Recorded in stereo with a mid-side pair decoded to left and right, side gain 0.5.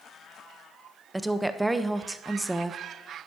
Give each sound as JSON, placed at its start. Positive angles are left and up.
{"t": 1.1, "sound": "a woman speaking", "azimuth_deg": -10, "distance_m": 0.8}